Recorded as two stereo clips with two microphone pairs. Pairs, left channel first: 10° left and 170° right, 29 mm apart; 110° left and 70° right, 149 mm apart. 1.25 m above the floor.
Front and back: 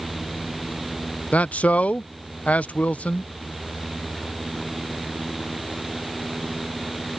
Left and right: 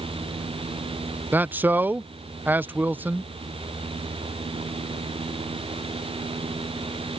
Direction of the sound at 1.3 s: 10° left.